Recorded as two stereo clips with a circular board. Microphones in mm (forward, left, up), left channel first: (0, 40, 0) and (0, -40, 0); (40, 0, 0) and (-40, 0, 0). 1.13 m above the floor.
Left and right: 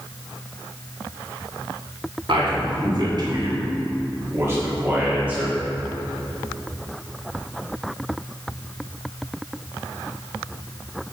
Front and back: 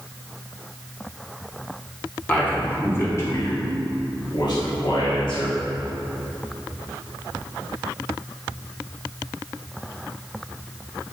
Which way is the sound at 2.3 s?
70° right.